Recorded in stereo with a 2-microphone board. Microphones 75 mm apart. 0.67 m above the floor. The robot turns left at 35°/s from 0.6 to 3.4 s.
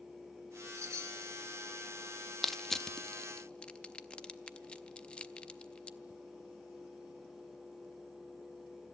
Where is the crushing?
Centre (ahead or behind), 0.5 m; by 6.0 s 15° left (ahead or behind), 0.5 m.